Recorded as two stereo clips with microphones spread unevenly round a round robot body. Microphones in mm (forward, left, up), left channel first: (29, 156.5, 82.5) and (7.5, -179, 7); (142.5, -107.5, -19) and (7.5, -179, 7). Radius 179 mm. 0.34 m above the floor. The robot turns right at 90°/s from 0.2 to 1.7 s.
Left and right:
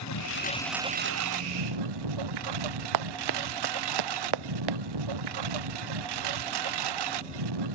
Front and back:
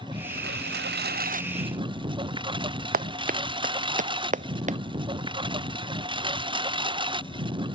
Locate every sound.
0.0 s a lawn mower: 130° left; by 7.8 s 95° right
2.9 s running footsteps: 130° right; by 4.8 s 115° right